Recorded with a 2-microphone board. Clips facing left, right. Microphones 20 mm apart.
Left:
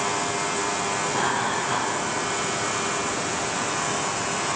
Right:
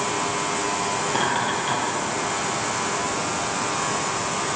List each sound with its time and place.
1.1 s laughter: 60° right (ahead or behind), 3 m